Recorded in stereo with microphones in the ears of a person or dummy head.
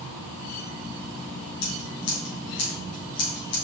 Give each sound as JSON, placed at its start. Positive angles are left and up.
{"t": 1.6, "sound": "scissors", "side_deg": 85, "distance_m": 8.0}